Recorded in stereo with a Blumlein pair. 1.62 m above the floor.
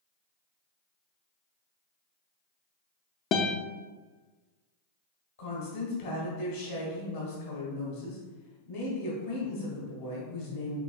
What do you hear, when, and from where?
3.3 s a guitar: 30° left, 0.5 m
5.4 s a woman speaking: 60° left, 1.9 m